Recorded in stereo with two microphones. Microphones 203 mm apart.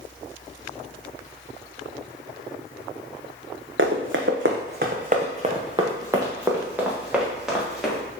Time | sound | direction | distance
3.8 | running footsteps | 70° right (ahead or behind) | 1.0 m